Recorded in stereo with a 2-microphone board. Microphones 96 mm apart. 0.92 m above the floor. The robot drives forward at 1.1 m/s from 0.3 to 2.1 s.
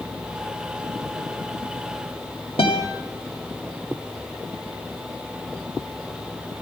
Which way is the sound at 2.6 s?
80° left.